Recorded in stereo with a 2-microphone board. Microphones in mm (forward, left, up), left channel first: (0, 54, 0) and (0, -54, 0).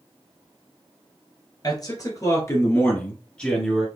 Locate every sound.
1.6 s a man speaking: 40° left (ahead or behind), 1.7 m; by 3.9 s centre (ahead or behind), 1.4 m